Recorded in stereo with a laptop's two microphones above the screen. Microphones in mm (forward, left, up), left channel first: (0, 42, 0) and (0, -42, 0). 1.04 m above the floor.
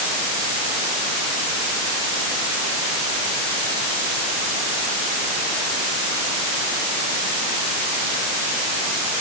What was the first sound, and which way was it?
Only background noise.